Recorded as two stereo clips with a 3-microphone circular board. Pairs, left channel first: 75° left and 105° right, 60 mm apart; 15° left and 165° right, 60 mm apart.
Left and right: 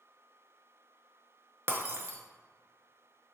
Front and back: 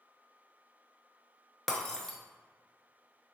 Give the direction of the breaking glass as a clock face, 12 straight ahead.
2 o'clock.